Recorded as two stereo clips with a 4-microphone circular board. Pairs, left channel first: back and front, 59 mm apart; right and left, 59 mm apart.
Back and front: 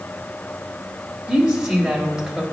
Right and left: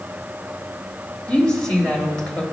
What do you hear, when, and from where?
1.3 s a woman speaking: 50° right, 1.1 m